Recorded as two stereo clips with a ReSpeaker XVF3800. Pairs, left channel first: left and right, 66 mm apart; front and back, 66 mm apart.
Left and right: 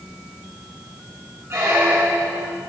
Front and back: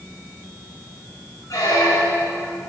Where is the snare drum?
I don't hear a snare drum.